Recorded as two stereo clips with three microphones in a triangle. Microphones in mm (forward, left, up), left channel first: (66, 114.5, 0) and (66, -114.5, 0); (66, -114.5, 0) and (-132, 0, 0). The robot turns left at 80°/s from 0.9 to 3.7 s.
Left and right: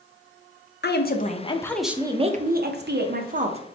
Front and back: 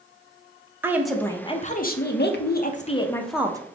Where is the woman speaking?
75° left, 0.6 m; by 3.6 s 140° right, 0.6 m.